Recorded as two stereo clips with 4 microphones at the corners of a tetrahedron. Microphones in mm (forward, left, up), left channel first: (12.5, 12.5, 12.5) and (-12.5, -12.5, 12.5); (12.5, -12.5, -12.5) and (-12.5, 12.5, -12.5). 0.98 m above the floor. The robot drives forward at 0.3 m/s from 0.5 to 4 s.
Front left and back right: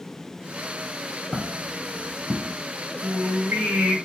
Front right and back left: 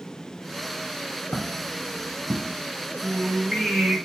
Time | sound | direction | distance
1.3 | footsteps | 50° right | 2 m
3.0 | singing | 140° right | 2 m